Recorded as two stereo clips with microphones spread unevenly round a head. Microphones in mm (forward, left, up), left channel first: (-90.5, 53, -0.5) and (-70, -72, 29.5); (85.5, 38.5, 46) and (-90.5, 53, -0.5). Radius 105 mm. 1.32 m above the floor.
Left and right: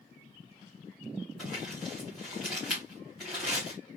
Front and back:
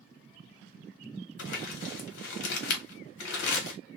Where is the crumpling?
10° left, 0.9 m.